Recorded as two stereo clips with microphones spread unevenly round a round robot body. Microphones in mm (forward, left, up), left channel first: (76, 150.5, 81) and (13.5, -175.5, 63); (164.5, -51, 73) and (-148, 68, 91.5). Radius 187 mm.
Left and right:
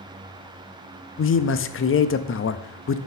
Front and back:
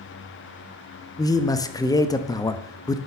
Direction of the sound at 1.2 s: 50° left.